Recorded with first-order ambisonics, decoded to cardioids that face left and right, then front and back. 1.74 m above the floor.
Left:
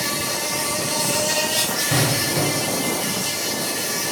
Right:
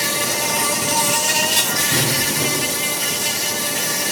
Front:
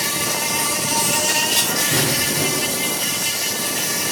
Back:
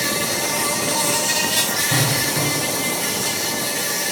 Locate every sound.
0.0 s an insect: 45° right, 1.9 m
1.9 s an explosion: 100° left, 3 m